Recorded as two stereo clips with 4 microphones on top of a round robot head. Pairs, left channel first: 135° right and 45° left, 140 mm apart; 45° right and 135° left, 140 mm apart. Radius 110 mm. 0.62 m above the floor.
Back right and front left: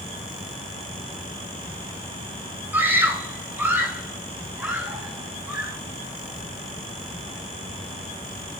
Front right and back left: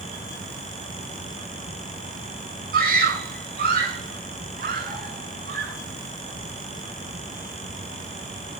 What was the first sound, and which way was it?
A scream, 125° left.